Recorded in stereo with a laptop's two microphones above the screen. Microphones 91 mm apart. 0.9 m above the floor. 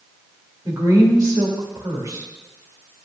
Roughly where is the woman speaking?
Right.